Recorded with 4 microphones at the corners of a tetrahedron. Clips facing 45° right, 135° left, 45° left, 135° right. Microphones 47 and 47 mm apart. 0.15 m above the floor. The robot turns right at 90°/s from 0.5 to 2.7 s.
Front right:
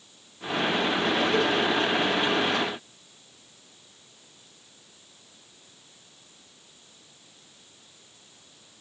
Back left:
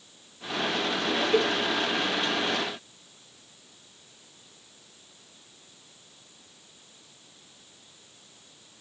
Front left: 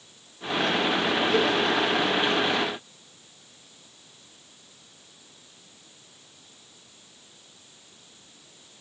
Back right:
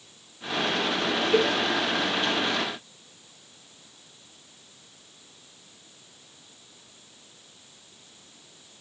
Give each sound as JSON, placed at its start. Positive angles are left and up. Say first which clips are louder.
{"t": 1.3, "sound": "a cowbell", "louder": "back left 3 dB, back right 2 dB", "azimuth_deg": -160, "distance_m": 1.7}